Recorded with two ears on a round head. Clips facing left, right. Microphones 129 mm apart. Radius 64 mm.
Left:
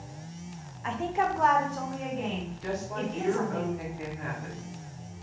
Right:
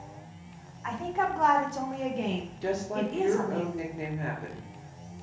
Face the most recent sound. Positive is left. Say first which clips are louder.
# right 4 dB
turn(degrees=-40)  # may be behind; listen again after turning